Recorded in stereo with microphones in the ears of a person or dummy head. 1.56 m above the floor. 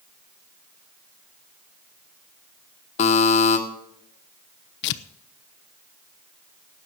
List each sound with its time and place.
3.0 s a buzzer: 40° left (ahead or behind), 1.8 m
4.8 s tearing paper: 60° left (ahead or behind), 0.7 m